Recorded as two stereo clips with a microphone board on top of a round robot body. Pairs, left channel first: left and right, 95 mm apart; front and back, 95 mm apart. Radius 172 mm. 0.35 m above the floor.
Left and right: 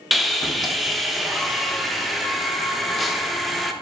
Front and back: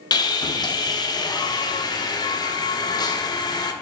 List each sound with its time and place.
0.1 s sawing: straight ahead, 0.7 m